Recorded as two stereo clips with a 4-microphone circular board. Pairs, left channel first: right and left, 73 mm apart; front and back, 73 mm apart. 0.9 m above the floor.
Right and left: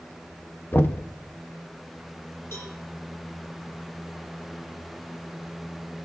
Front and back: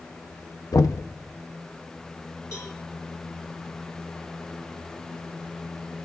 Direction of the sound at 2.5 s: 35° right.